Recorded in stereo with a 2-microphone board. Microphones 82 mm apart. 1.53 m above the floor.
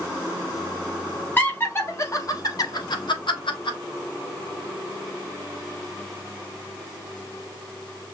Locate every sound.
1.4 s laughter: 20° left (ahead or behind), 1.3 m; by 3.8 s 80° left, 1.3 m